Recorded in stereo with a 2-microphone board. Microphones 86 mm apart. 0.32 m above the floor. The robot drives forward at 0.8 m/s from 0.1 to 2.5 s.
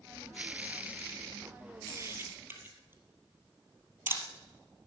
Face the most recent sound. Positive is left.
turn(degrees=-25)  # may be behind; listen again after turning